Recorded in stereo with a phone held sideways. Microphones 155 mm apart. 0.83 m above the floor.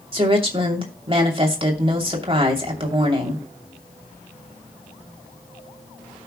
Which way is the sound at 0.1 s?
35° right (ahead or behind).